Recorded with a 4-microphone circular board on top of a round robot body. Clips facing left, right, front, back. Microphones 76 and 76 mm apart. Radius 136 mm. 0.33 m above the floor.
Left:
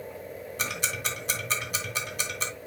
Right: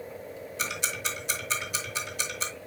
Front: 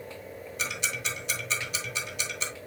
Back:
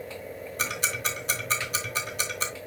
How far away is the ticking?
About 2.5 m.